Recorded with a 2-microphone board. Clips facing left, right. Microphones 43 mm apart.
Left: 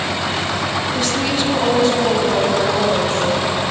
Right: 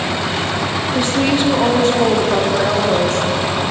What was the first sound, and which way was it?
A woman speaking, 20° right (ahead or behind).